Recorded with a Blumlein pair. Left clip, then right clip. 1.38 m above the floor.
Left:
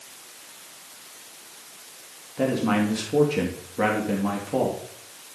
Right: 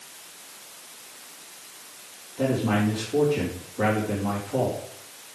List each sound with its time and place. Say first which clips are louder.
2.4 s a man speaking: left 1 dB; 25° left, 3 m